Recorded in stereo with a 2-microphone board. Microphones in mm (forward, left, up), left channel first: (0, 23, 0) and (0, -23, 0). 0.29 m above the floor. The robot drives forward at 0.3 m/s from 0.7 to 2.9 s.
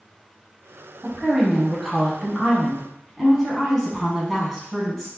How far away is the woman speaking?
About 1.6 m.